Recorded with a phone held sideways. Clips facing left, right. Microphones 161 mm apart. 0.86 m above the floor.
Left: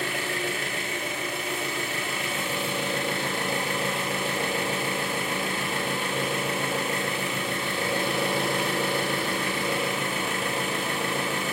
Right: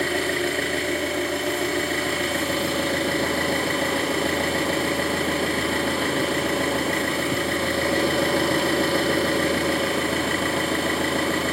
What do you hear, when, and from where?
0.0 s an engine running: 75° right (ahead or behind), 2.5 m